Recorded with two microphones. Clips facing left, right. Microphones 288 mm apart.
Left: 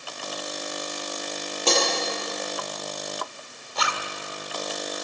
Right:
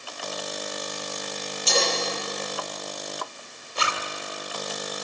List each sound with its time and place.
1.7 s breaking glass: 70° left (ahead or behind), 8 m
3.8 s a zipper: 30° right (ahead or behind), 1.6 m